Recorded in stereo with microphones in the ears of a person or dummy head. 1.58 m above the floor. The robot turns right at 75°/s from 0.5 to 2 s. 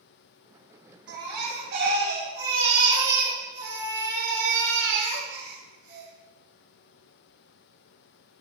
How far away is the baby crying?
About 4 m.